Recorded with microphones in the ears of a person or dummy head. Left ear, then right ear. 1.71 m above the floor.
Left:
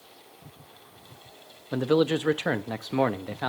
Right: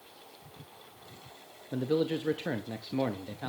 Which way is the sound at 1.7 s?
40° left (ahead or behind).